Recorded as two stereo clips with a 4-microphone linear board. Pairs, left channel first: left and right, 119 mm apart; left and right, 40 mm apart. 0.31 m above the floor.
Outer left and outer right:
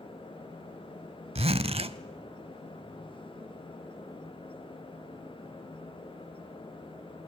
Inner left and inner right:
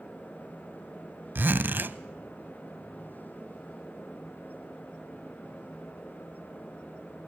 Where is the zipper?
60° right (ahead or behind), 0.6 m.